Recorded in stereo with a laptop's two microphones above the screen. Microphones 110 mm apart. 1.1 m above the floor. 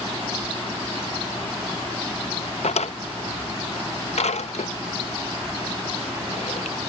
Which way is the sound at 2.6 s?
80° left.